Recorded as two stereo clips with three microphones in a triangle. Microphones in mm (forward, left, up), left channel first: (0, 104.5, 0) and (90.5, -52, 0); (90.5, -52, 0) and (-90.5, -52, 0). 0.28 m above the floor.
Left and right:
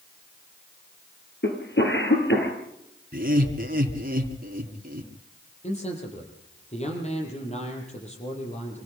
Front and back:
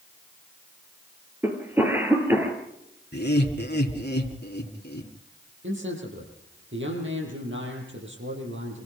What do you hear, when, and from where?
1.4 s a cough: 100° left, 7 m
3.1 s laughter: 25° right, 3.5 m
5.6 s a man speaking: 175° left, 8.5 m